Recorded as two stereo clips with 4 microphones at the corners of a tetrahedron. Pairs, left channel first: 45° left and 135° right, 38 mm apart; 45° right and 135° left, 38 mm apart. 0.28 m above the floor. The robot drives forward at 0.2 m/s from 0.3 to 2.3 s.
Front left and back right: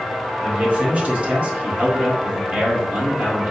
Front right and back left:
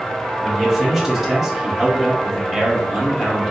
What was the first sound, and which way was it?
A man speaking, 140° right.